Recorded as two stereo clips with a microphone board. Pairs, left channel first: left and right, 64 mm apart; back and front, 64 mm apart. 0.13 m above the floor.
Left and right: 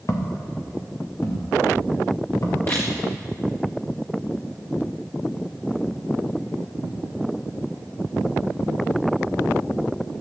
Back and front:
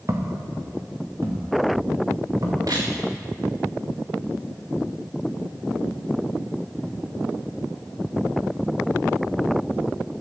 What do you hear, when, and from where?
0.1 s footsteps: 45° left, 2.5 m
2.7 s a camera shutter: 35° left, 4.5 m